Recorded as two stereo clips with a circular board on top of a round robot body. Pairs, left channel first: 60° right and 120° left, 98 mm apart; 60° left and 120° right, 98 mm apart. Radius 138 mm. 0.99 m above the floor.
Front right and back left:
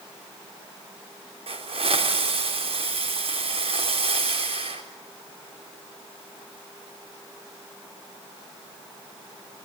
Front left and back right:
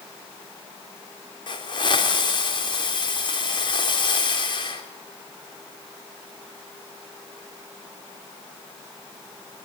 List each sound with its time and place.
1.5 s a hiss: 100° left, 4.5 m